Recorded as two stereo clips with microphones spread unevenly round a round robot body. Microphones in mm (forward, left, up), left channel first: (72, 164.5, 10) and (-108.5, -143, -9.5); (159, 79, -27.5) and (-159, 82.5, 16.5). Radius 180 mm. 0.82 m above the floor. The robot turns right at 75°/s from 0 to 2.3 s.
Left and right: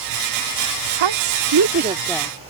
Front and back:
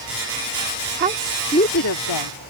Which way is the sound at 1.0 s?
120° right.